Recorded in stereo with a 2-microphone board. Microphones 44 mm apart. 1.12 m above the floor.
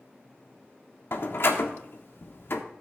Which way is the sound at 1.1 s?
60° left (ahead or behind).